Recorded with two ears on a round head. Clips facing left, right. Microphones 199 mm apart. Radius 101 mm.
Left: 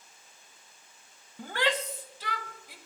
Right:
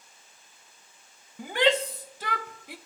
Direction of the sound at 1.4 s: 5° right (ahead or behind).